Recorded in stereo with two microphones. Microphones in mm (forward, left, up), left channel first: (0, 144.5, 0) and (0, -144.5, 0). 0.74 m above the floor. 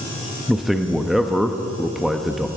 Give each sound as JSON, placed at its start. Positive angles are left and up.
{"t": 0.5, "sound": "a man speaking", "side_deg": 0, "distance_m": 0.7}